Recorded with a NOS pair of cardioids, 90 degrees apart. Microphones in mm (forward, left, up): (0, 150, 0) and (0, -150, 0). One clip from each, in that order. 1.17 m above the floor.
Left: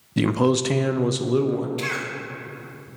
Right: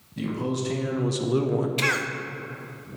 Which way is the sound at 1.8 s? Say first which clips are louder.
Right 3 dB; 40° right.